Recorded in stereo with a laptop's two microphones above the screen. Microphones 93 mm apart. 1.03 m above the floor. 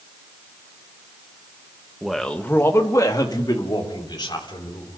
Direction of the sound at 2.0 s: 5° right (ahead or behind).